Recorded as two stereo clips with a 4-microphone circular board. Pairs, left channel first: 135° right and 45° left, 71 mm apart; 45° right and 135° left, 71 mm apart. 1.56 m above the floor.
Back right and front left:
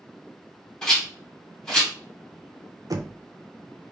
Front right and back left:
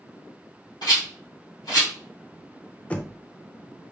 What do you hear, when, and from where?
0.8 s a rattle: 55° right, 2.5 m
2.9 s knocking: 25° left, 0.6 m